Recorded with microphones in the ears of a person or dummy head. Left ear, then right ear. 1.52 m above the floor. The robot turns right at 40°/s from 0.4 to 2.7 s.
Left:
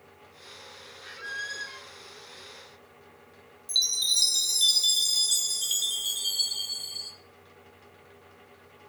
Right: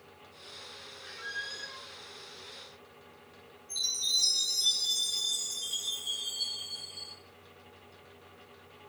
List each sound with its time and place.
1.0 s a squeak: 5° left, 0.6 m; by 1.9 s 40° left, 0.6 m
3.7 s a chime: 55° left (ahead or behind), 0.9 m